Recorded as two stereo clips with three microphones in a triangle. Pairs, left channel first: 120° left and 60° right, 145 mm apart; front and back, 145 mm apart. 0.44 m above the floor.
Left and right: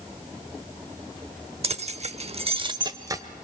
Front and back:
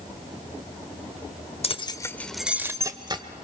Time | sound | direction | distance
1.6 | keys jangling | 30° right | 0.9 m